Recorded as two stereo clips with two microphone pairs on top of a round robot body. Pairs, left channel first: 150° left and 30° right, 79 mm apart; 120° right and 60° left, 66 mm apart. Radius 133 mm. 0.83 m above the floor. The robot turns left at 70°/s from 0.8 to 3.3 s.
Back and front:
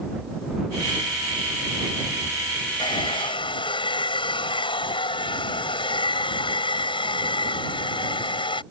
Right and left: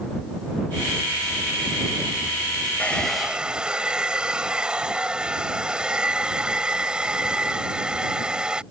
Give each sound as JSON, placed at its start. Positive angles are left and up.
{"t": 2.8, "sound": "a hair dryer", "azimuth_deg": 175}